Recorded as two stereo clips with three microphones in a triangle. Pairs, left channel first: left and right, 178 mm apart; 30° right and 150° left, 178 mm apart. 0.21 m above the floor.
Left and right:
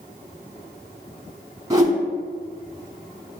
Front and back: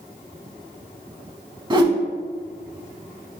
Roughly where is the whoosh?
Behind right.